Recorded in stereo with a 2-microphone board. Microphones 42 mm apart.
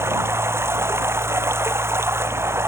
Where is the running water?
70° right (ahead or behind).